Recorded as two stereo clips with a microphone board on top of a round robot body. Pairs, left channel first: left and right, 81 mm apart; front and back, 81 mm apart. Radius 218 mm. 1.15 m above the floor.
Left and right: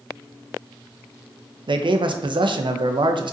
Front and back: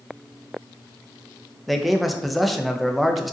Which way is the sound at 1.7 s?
90° right.